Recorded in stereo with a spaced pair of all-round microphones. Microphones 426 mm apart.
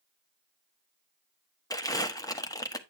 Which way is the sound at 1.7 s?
10° left (ahead or behind).